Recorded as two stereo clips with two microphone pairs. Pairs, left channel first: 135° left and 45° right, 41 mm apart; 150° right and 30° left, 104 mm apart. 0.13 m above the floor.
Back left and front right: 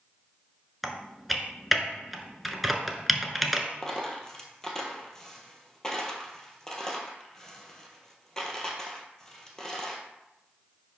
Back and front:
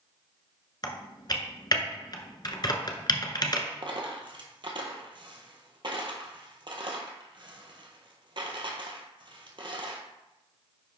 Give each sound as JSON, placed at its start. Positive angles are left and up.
{"t": 0.8, "sound": "typing on a keyboard", "azimuth_deg": -130, "distance_m": 0.8}
{"t": 3.8, "sound": "a dropped coin", "azimuth_deg": 60, "distance_m": 1.3}